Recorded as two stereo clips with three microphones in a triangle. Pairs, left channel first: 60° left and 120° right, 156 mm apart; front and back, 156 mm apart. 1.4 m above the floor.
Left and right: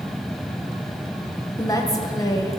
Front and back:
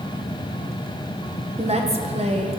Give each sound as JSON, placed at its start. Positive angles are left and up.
{"t": 1.6, "sound": "a woman speaking", "azimuth_deg": 130, "distance_m": 0.9}